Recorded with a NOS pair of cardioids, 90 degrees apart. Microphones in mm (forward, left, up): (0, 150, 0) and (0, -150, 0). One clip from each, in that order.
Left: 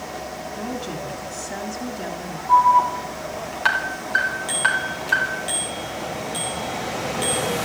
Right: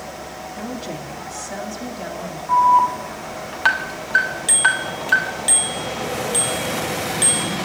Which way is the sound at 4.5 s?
60° right.